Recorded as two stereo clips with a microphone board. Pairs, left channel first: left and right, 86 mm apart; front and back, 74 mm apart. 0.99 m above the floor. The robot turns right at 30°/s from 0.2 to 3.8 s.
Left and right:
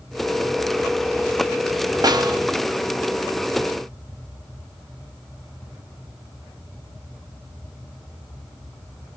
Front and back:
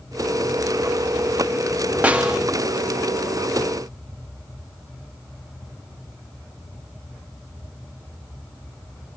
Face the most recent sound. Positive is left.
turn(degrees=-60)